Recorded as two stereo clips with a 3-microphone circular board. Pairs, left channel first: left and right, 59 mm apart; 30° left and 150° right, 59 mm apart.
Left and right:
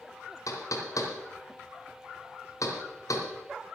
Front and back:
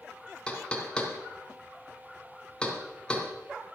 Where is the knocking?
105° left, 2 m.